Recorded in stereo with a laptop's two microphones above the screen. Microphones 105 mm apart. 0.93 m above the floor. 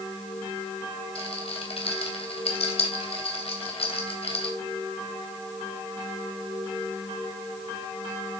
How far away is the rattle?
About 3 m.